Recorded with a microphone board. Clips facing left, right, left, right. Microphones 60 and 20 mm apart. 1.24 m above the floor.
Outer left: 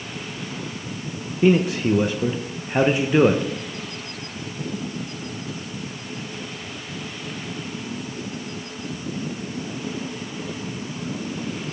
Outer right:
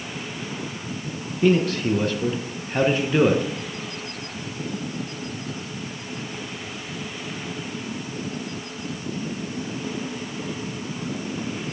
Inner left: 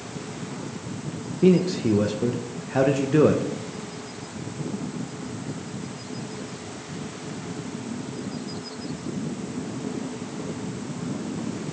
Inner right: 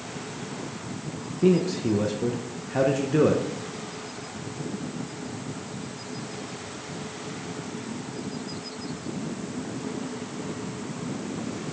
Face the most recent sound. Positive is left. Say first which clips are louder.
# outer left 2 dB, inner left 2 dB
turn(degrees=15)  # may be behind; listen again after turning